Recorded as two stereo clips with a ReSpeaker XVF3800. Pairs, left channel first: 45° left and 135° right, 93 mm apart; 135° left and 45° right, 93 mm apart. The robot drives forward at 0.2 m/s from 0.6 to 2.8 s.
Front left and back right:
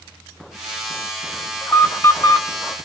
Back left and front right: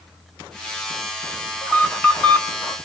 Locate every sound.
1.6 s an alarm: 65° left, 1.6 m; by 2.8 s 75° left, 1.6 m